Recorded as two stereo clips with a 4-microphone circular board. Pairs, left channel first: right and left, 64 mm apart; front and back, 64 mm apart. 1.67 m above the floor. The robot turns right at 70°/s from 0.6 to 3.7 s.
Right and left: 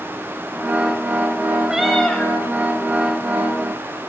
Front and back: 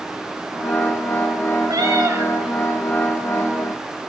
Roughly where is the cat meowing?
Behind.